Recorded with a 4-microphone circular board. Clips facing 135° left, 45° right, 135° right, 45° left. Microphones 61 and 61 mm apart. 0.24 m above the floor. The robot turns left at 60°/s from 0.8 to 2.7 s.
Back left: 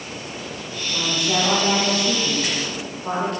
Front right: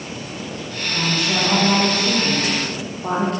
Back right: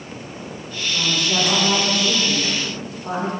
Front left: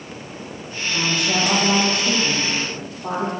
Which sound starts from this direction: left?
A woman speaking, at 0.9 s.